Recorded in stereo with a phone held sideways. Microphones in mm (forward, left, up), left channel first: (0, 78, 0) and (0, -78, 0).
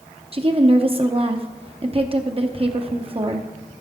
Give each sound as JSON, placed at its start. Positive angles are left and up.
{"t": 0.3, "sound": "a woman speaking", "side_deg": -35, "distance_m": 0.7}